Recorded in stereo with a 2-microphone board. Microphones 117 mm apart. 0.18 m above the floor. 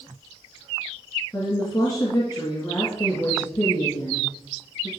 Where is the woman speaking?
25° left (ahead or behind), 2.5 m.